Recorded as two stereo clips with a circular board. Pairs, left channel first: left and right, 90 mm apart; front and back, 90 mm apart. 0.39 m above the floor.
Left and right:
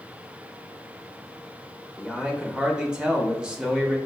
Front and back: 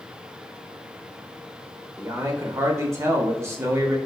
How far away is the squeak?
I don't hear a squeak.